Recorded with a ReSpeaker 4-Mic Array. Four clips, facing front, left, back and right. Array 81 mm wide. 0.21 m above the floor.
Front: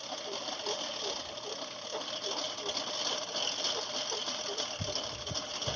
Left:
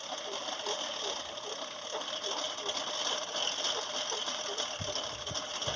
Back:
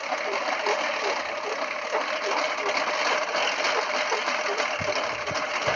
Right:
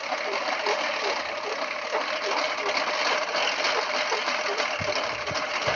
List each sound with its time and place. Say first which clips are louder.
0.0 s a lawn mower: right 12 dB, back 13 dB; 145° right